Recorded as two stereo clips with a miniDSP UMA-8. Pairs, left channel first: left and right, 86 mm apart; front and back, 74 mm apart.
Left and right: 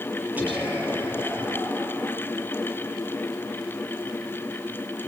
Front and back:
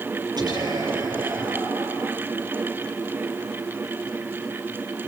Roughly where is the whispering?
Behind.